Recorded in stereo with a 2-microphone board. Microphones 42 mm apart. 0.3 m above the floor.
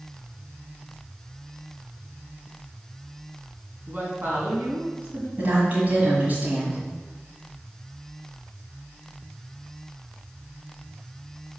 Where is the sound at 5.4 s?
40° right (ahead or behind), 1.6 m.